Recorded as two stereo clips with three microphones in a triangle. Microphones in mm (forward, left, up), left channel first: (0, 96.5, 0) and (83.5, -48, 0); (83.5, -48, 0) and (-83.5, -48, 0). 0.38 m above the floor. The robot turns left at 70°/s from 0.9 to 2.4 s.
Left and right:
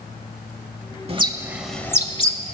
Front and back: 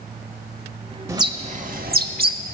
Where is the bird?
105° right, 0.6 m; by 2.5 s 160° left, 0.6 m.